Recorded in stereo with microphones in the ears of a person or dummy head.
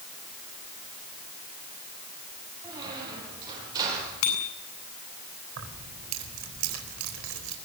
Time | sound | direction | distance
2.6 | a squeak | 20° right (ahead or behind) | 9 m
4.2 | a bicycle bell | 80° left | 8 m
5.6 | keys jangling | 70° right (ahead or behind) | 4 m